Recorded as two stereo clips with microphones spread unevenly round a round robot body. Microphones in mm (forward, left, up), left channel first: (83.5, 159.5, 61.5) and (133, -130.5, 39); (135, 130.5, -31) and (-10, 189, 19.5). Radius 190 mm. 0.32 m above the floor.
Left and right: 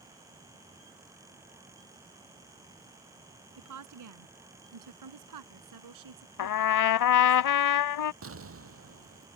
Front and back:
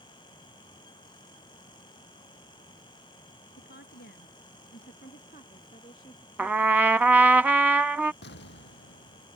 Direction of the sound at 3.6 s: 60° right.